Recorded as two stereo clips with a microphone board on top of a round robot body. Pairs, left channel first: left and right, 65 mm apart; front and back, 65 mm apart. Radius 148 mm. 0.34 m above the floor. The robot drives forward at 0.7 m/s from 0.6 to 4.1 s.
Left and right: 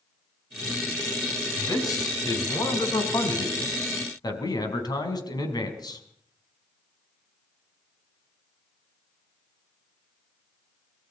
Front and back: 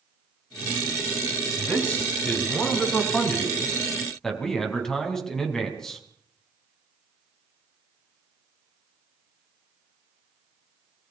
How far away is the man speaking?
About 5 m.